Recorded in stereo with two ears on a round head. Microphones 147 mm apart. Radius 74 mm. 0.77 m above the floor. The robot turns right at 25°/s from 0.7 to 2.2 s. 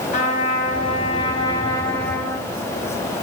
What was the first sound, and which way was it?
A trumpet, 130° left.